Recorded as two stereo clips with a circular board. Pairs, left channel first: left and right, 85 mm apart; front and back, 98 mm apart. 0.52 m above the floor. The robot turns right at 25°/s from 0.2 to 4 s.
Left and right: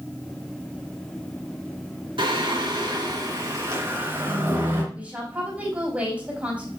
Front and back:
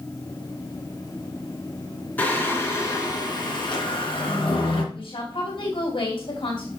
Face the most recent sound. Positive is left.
turn(degrees=-15)